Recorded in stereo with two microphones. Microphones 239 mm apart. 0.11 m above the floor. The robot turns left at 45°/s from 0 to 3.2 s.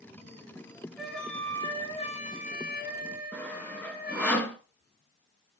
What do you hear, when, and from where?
1.0 s a flute: 175° right, 1.9 m; by 4.3 s 85° left, 1.9 m
3.3 s sawing: 5° left (ahead or behind), 1.2 m